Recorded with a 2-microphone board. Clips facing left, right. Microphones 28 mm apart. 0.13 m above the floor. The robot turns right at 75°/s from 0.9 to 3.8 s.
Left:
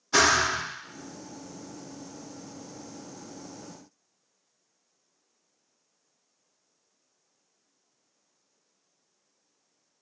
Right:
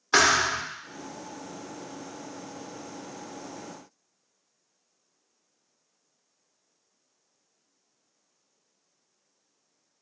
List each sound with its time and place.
0.1 s a thud: 40° right (ahead or behind), 2.0 m